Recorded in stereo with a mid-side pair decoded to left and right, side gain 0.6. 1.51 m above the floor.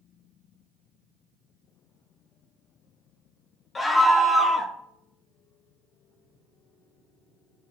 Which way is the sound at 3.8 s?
25° left.